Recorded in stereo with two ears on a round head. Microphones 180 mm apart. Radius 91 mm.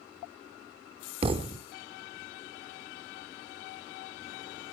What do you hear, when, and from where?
1.2 s a thud: 25° right (ahead or behind), 0.7 m